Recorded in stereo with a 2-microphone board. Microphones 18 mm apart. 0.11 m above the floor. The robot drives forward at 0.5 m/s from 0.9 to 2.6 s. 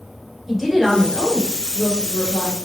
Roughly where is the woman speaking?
Centre.